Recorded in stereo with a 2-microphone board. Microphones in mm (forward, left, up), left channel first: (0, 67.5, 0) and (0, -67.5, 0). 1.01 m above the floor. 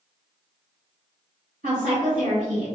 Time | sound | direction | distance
1.6 | a woman speaking | 75° right (ahead or behind) | 1.7 m